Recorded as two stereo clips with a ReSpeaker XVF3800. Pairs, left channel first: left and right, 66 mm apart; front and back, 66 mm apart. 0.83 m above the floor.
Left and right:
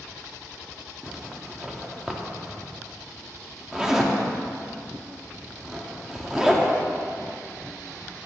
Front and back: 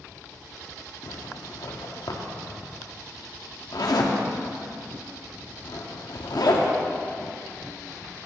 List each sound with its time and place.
1.0 s a zipper: 10° right, 0.9 m